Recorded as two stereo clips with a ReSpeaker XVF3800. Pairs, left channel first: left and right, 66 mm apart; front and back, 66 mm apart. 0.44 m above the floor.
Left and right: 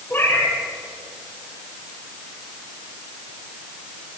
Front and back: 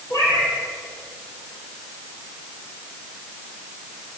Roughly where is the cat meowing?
Ahead left.